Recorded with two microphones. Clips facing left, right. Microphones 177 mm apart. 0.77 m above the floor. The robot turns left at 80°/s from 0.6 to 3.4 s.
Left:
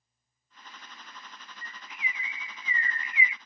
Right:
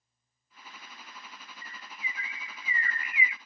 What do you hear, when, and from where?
1.6 s a bird: 5° right (ahead or behind), 0.6 m; by 3.4 s 20° left (ahead or behind), 0.6 m